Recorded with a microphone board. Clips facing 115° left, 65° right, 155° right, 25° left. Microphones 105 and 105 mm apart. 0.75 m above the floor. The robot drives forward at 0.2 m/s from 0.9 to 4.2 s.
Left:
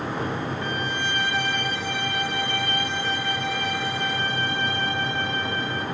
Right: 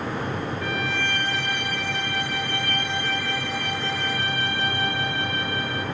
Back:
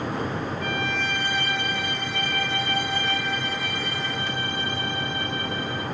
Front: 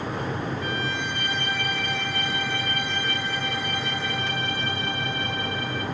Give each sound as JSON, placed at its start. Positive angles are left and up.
{"t": 0.6, "sound": "a violin", "azimuth_deg": 180, "distance_m": 4.5}